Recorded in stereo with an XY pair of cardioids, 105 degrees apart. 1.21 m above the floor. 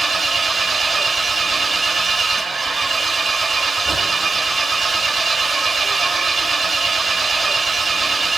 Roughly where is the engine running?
Ahead.